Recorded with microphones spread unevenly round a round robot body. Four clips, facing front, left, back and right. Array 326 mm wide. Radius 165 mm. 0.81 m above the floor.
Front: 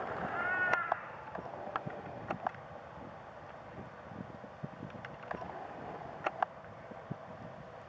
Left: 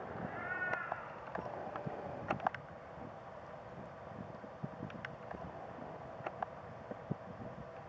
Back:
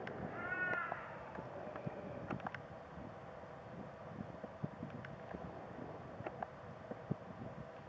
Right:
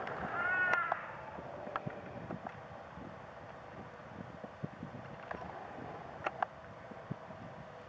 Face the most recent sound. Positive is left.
turn(degrees=-120)